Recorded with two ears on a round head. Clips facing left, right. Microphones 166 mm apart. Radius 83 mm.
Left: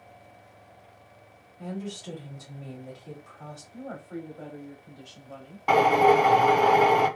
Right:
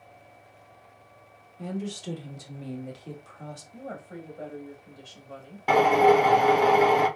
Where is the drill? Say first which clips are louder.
Right 1 dB; 10° right (ahead or behind), 1.0 m.